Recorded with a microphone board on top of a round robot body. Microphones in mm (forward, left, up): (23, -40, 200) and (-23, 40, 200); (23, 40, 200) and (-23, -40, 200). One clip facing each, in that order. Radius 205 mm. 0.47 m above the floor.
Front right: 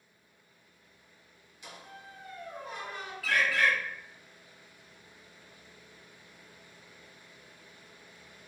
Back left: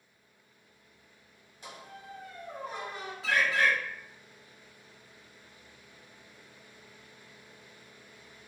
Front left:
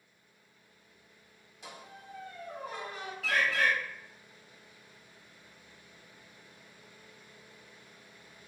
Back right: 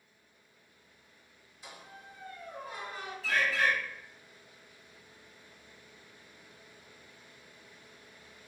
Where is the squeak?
65° left, 1.6 m.